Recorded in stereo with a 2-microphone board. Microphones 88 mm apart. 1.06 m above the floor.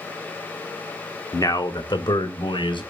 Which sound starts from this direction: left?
A man speaking, at 1.3 s.